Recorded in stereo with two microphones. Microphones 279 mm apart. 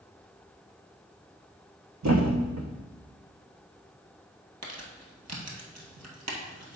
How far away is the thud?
About 1.2 m.